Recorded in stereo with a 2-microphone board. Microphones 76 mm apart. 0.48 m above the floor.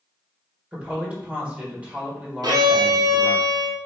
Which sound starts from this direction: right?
A violin, at 2.4 s.